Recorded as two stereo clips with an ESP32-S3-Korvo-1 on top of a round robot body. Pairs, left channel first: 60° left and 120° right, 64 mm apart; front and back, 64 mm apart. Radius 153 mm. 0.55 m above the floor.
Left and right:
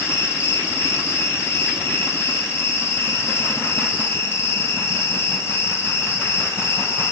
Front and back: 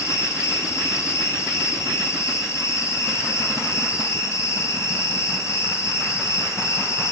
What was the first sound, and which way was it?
An insect, 25° left.